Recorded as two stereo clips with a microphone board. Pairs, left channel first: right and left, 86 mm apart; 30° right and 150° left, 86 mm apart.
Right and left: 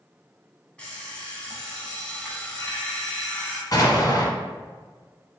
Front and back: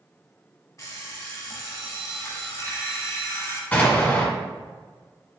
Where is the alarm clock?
20° right, 1.0 m.